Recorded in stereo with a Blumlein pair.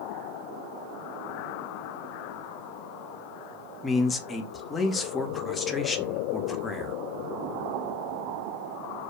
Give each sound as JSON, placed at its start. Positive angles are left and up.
{"t": 3.8, "sound": "a man speaking", "azimuth_deg": 15, "distance_m": 0.5}